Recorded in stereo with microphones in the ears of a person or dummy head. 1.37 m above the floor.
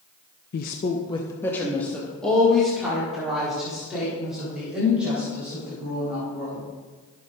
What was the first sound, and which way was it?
A woman speaking, 55° left (ahead or behind).